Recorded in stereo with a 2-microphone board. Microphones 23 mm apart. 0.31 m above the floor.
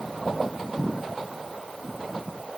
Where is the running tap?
No running tap in this recording.